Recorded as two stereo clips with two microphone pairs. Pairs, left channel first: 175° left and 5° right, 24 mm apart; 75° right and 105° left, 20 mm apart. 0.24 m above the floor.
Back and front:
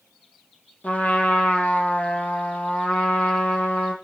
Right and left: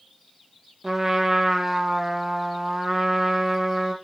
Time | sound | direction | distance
0.8 | a trumpet | 175° left | 2.5 m